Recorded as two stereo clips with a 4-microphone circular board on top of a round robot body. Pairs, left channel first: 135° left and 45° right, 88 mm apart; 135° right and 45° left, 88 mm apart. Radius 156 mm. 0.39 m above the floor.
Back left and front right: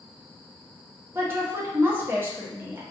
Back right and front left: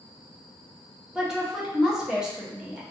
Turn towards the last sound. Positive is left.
turn(degrees=-30)